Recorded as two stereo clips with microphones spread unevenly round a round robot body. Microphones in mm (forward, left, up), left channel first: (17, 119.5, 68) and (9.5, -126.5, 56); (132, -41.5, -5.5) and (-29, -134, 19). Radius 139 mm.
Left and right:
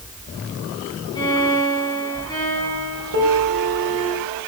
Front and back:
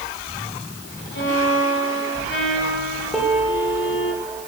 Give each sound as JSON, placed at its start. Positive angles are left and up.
{"t": 1.1, "sound": "a violin", "azimuth_deg": 15, "distance_m": 9.0}
{"t": 3.1, "sound": "a piano", "azimuth_deg": -60, "distance_m": 8.0}